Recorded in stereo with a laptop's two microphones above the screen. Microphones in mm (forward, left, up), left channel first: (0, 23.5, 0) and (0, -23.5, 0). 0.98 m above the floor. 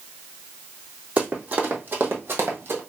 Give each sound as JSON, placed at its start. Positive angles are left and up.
{"t": 1.2, "sound": "running footsteps", "side_deg": -30, "distance_m": 2.0}